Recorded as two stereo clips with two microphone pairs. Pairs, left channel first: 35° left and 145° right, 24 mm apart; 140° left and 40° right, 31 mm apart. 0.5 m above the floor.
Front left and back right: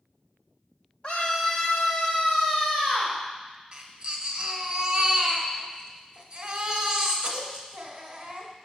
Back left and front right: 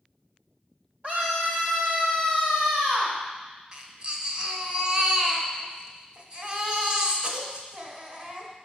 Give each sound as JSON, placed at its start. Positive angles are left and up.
{"t": 1.0, "sound": "a scream", "azimuth_deg": -5, "distance_m": 2.0}
{"t": 3.7, "sound": "a baby crying", "azimuth_deg": -90, "distance_m": 1.4}